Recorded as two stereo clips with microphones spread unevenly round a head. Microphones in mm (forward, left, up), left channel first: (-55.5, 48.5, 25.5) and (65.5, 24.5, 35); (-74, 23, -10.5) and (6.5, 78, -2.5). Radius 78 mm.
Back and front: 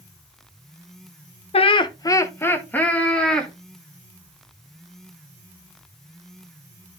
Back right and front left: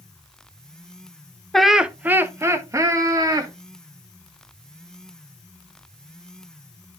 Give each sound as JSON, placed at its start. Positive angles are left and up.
{"t": 1.5, "sound": "laughter", "azimuth_deg": 130, "distance_m": 1.0}